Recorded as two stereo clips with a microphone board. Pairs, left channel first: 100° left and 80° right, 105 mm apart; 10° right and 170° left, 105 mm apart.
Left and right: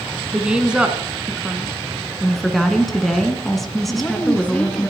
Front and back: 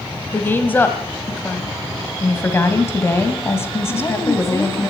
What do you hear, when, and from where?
0.3 s a woman speaking: 20° right, 1.2 m
2.2 s a woman speaking: 15° left, 1.7 m
3.9 s a woman speaking: 30° left, 1.3 m